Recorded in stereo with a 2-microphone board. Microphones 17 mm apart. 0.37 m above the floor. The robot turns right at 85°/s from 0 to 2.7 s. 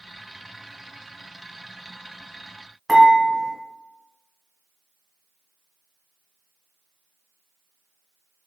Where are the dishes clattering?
10° left (ahead or behind), 1.7 m.